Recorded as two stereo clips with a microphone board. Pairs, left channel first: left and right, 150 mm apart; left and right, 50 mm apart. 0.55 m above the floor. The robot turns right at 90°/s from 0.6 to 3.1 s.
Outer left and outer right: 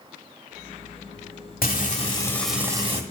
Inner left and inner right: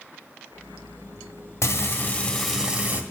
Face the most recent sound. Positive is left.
turn(degrees=-125)